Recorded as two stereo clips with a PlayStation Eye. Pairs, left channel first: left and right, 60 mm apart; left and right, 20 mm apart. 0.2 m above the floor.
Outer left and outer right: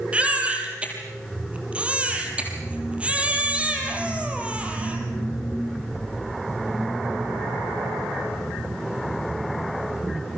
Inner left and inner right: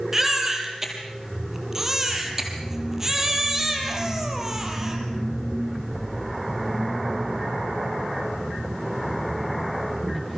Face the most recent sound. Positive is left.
turn(degrees=-25)  # may be behind; listen again after turning